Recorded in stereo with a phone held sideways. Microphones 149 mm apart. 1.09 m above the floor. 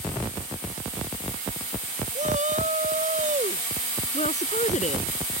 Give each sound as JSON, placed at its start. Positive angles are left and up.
{"t": 2.1, "sound": "a shout", "side_deg": -55}
{"t": 4.1, "sound": "a woman speaking", "side_deg": 50}